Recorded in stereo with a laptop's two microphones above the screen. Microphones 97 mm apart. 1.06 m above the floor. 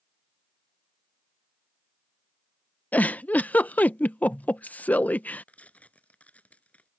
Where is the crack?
I don't hear a crack.